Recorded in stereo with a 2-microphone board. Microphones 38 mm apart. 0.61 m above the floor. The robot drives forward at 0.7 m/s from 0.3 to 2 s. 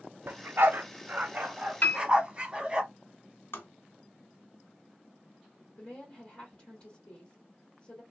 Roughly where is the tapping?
Left.